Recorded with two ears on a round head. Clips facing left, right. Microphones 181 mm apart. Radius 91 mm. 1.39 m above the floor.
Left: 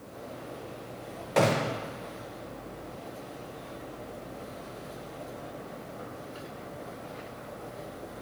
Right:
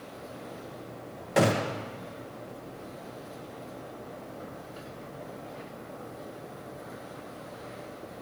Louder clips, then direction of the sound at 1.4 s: Even; 10° right (ahead or behind).